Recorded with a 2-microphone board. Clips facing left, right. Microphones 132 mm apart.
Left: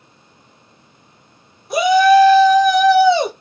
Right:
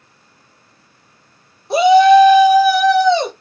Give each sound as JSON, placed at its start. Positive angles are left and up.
{"t": 1.7, "sound": "a shout", "side_deg": -30, "distance_m": 0.9}